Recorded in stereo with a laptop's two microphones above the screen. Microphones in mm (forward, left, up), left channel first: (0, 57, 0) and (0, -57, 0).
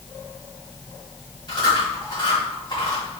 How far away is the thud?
No thud in this recording.